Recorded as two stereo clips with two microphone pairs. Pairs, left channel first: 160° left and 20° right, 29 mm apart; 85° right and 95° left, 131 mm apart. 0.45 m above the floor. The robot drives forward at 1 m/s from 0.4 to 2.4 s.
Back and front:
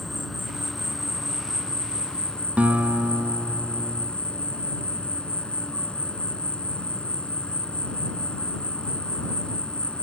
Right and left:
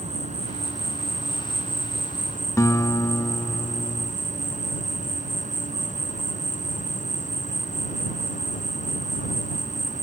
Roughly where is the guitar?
Ahead.